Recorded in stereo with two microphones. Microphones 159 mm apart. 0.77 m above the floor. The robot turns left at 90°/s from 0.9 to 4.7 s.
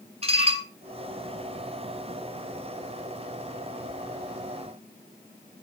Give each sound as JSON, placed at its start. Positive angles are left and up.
{"t": 0.2, "sound": "dishes clattering", "side_deg": -40, "distance_m": 2.5}